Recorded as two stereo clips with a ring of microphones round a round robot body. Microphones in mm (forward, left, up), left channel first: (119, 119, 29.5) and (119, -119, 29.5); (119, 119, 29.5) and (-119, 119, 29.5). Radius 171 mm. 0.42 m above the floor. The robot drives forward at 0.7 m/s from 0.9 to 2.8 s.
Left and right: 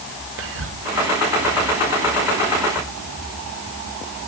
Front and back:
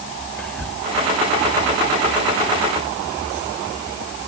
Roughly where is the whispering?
Right.